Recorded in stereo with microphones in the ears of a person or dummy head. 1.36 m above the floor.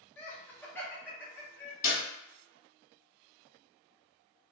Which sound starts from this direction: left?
A clap, at 1.8 s.